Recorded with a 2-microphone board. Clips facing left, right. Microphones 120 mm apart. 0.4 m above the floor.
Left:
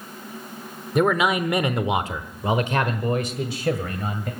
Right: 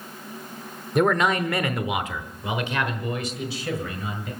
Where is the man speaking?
Centre (ahead or behind), 1.0 m; by 4.3 s 55° left (ahead or behind), 2 m.